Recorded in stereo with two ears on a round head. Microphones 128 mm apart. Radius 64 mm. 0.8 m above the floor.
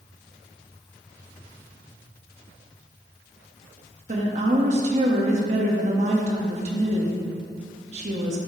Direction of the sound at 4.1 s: 50° right (ahead or behind).